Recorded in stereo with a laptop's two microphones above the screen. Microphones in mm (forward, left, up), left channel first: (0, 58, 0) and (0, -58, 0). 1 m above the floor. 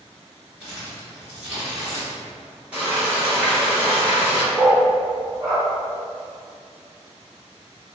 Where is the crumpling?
15° right (ahead or behind), 1.4 m.